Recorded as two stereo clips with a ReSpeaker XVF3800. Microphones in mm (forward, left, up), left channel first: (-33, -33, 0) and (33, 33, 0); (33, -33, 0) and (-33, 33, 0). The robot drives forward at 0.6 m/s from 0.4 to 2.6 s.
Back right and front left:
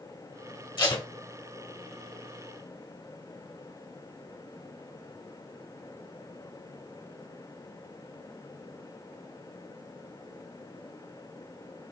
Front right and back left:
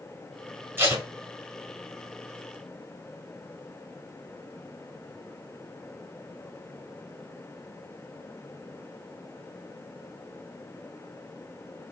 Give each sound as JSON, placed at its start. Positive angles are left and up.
{"t": 0.8, "sound": "tape being pulled", "azimuth_deg": -165, "distance_m": 1.3}